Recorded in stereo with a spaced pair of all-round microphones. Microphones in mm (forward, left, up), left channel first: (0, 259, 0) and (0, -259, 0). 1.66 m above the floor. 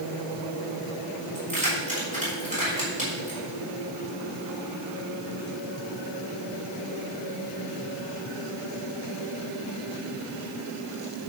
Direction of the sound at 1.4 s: 15° right (ahead or behind).